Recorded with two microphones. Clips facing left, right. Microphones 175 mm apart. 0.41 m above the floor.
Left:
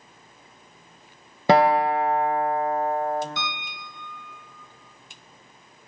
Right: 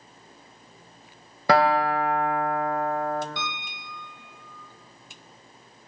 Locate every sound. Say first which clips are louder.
1.5 s a guitar: left 3 dB; 25° left (ahead or behind), 0.6 m
3.4 s a piano: left 1 dB; 55° right (ahead or behind), 1.4 m